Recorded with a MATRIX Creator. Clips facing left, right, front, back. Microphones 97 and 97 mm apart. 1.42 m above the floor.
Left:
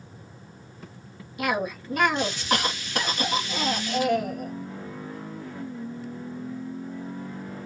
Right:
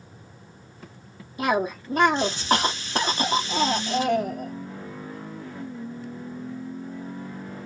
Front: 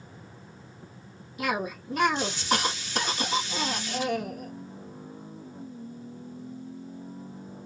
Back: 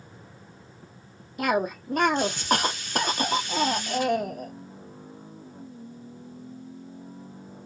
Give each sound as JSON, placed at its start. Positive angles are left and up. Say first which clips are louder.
{"t": 1.4, "sound": "a cough", "louder": "right 3 dB, back 5 dB", "azimuth_deg": -145, "distance_m": 1.0}